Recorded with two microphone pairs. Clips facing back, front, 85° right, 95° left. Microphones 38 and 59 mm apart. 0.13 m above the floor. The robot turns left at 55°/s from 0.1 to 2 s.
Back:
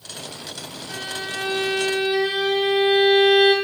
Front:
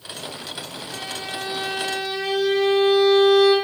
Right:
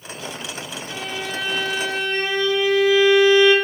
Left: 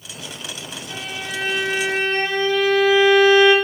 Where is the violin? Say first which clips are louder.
Back 2 dB, right 1 dB; 175° right, 0.9 m; by 3.5 s 125° left, 0.9 m.